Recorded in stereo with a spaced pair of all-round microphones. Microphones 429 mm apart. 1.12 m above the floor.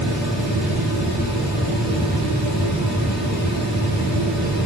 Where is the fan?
20° left (ahead or behind), 3 m.